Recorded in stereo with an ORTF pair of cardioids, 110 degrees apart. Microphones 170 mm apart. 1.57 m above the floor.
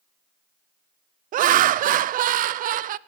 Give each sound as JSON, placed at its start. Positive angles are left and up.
{"t": 1.3, "sound": "laughter", "azimuth_deg": -55, "distance_m": 0.5}